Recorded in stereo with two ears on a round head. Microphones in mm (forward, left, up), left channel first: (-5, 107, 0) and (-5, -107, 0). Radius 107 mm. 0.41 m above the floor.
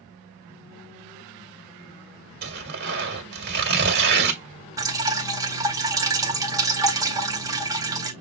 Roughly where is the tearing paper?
Right.